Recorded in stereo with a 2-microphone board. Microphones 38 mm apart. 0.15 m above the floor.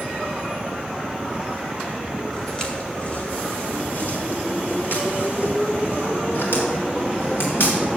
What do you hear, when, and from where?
2.3 s footsteps: 10° left (ahead or behind), 2.5 m; by 7.8 s 80° left, 6.5 m